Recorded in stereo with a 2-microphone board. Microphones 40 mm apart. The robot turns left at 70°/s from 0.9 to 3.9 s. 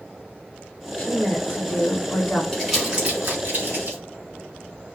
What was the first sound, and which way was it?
A woman speaking, 125° left.